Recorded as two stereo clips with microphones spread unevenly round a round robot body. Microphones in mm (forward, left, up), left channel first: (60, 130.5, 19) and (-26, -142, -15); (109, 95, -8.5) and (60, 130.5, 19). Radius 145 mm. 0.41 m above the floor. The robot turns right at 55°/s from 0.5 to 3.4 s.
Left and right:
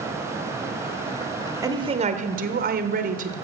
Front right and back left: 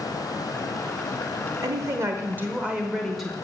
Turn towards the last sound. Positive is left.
turn(degrees=-75)